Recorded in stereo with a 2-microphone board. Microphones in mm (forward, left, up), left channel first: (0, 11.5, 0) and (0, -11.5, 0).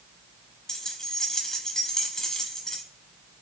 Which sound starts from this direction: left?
Keys jangling, at 0.7 s.